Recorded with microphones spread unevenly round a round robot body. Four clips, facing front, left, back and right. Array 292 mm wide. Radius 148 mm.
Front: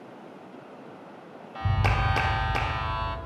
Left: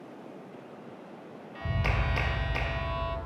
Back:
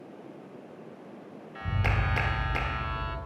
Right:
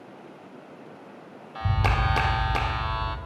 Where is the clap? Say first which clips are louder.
Right 6 dB, front 4 dB; 45° right, 0.7 m.